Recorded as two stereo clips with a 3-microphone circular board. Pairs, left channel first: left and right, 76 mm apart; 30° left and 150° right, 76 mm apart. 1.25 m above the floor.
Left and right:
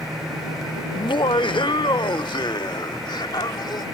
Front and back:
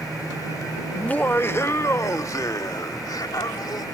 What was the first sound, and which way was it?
Laughter, 105° left.